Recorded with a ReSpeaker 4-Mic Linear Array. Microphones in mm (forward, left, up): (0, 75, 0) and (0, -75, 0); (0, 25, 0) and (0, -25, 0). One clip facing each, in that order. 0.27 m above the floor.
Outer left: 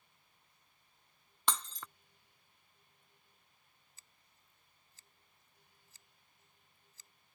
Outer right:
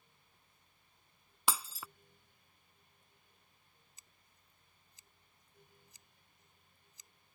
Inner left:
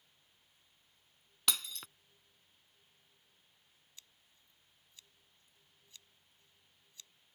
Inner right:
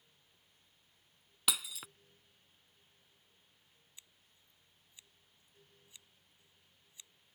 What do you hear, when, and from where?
1.5 s breaking glass: 5° right (ahead or behind)
4.0 s scissors: 20° right (ahead or behind)